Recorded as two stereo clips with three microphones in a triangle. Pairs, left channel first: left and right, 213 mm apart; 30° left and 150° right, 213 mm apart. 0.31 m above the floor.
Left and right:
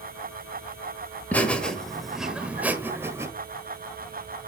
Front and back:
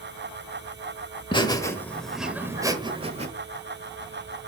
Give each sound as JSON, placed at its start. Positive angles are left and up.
{"t": 1.3, "sound": "laughter", "azimuth_deg": 20, "distance_m": 1.5}